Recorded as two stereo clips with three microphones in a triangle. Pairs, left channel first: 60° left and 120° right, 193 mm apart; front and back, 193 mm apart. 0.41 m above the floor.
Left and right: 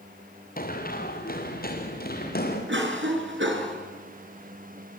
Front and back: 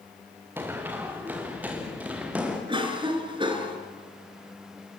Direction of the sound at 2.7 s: 115° right.